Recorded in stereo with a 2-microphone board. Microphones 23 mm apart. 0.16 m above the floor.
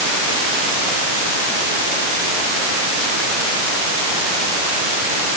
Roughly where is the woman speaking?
I don't hear a woman speaking.